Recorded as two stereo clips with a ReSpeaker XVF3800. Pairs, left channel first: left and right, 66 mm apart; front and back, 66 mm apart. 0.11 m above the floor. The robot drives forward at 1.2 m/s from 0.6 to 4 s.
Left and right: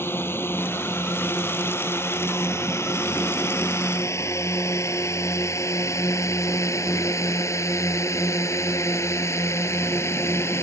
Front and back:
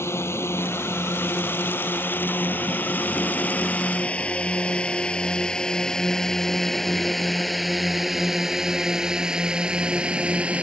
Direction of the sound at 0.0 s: 40° left.